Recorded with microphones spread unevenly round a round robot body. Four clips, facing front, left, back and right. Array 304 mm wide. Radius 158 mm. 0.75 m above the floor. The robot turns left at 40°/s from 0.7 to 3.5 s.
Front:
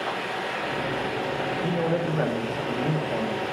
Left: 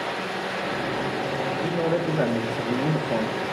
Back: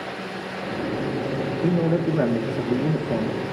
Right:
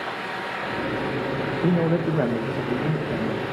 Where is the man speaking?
130° right, 0.8 m; by 3.4 s 155° left, 0.8 m.